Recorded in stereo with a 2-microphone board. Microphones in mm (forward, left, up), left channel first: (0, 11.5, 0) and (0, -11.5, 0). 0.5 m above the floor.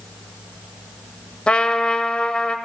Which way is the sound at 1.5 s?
50° left (ahead or behind).